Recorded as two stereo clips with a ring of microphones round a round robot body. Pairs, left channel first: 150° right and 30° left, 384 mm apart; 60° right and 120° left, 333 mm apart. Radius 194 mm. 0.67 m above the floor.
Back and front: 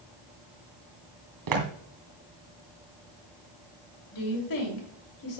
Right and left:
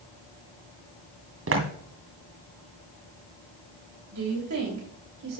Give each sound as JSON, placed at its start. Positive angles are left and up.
{"t": 1.5, "sound": "footsteps", "azimuth_deg": 70, "distance_m": 2.5}
{"t": 4.1, "sound": "a woman speaking", "azimuth_deg": 170, "distance_m": 3.0}